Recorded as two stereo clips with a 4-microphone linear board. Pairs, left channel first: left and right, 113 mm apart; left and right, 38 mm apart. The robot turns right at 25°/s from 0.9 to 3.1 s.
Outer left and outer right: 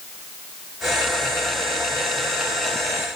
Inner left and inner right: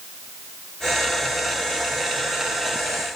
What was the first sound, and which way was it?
Only background noise.